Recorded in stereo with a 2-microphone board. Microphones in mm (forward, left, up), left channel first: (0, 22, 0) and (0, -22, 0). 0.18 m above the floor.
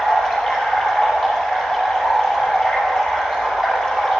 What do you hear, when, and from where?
0.0 s running water: 15° left (ahead or behind), 2.5 m